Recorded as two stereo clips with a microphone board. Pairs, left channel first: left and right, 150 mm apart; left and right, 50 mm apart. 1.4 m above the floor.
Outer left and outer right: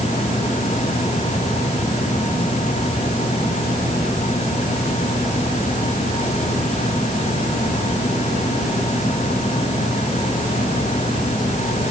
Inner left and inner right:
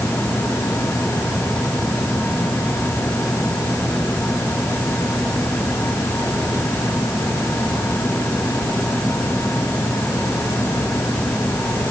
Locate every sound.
Only background noise.